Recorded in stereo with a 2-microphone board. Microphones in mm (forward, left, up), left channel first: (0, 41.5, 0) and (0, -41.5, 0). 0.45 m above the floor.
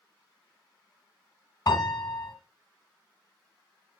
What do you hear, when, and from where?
1.7 s a piano: 45° left (ahead or behind), 1.8 m